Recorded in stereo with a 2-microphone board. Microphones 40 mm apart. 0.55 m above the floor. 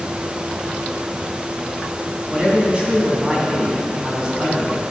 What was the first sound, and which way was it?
A man speaking, 25° right (ahead or behind).